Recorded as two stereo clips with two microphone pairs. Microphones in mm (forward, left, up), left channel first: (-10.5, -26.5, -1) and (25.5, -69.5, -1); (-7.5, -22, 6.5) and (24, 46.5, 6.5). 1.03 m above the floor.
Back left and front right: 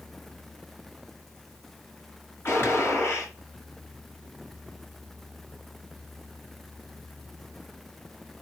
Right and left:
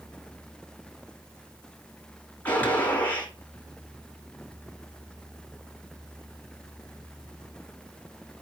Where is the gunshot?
Straight behind, 6 m.